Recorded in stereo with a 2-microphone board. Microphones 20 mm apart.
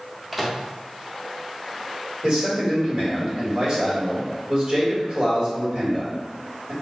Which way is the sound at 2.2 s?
40° right (ahead or behind).